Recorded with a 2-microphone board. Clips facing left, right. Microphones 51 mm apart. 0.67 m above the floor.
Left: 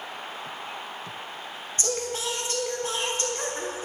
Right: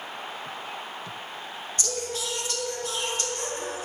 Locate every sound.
1.8 s singing: 35° left (ahead or behind), 1.2 m